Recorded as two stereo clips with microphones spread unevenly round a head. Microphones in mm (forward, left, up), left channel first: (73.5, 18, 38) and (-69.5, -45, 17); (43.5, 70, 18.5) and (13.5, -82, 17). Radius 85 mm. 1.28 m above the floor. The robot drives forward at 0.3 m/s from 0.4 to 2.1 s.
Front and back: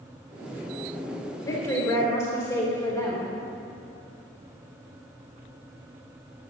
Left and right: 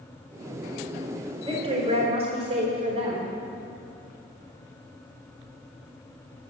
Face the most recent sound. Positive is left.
turn(degrees=-50)